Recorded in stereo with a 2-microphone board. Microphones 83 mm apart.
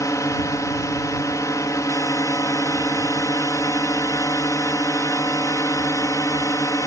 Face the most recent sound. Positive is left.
turn(degrees=45)  # may be behind; listen again after turning